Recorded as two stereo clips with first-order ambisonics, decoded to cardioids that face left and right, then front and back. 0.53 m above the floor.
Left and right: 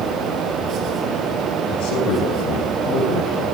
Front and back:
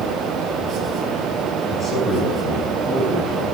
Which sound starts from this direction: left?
A man speaking, at 1.7 s.